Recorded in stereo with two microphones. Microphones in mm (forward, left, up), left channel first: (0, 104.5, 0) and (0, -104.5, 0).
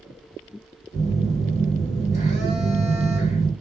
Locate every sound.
0.9 s a phone buzzing: 35° left (ahead or behind), 1.7 m